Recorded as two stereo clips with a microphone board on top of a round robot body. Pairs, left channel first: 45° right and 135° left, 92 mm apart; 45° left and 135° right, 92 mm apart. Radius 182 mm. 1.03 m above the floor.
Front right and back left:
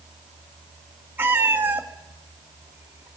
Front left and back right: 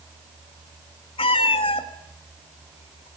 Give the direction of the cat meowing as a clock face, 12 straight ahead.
10 o'clock.